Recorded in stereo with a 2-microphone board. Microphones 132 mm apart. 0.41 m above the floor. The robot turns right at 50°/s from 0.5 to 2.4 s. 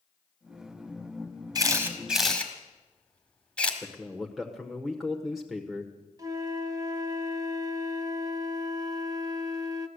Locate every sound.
1.6 s a camera shutter: 30° right (ahead or behind), 1.8 m; by 3.7 s 10° left (ahead or behind), 1.8 m
3.8 s a man speaking: 5° right (ahead or behind), 1.1 m
6.2 s a flute: 30° right (ahead or behind), 0.8 m